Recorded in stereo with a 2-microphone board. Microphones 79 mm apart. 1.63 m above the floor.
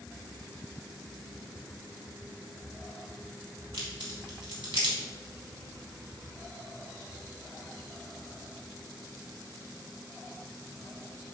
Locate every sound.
3.7 s a crack: 75° right (ahead or behind), 2 m